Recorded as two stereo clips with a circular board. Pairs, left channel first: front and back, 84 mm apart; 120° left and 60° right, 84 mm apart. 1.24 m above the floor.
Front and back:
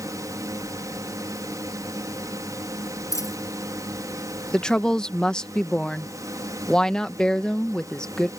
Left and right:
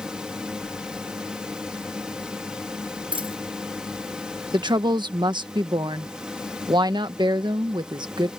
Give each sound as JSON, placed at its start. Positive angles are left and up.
{"t": 0.0, "sound": "a drone", "azimuth_deg": -140}
{"t": 3.1, "sound": "a dropped coin", "azimuth_deg": -50}
{"t": 4.5, "sound": "a woman speaking", "azimuth_deg": -80}